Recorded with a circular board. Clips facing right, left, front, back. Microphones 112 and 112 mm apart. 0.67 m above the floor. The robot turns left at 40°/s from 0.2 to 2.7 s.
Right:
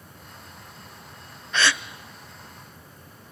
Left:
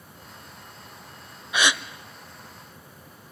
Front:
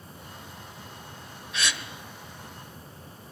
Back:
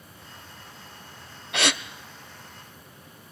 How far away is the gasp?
About 0.8 m.